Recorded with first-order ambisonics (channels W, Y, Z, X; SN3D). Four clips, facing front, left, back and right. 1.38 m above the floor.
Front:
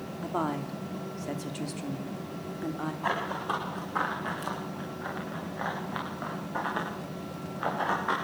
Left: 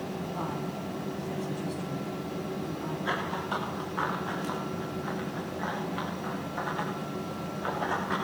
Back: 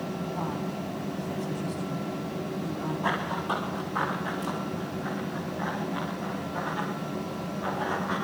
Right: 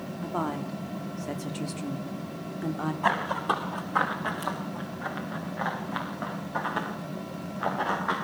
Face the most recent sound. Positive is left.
turn(degrees=-50)